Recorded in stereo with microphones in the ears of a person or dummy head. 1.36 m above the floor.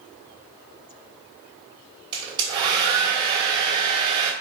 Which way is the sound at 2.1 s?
25° right (ahead or behind).